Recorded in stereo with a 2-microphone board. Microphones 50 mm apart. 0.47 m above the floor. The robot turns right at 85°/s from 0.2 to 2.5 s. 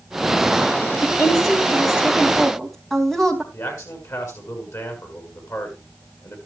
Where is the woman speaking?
50° left, 3 m; by 3.4 s 175° left, 3 m.